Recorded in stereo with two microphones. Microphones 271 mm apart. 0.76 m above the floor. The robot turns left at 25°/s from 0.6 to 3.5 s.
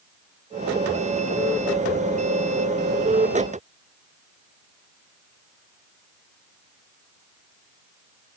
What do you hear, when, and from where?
Only background noise.